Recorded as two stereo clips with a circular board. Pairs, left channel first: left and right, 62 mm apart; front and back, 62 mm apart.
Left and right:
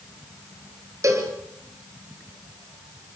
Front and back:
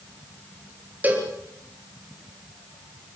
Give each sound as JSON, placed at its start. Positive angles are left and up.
{"t": 1.0, "sound": "a cowbell", "azimuth_deg": -120, "distance_m": 3.5}